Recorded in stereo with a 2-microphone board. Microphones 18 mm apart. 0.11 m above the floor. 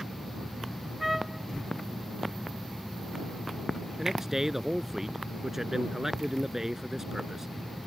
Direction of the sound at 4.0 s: 25° right (ahead or behind).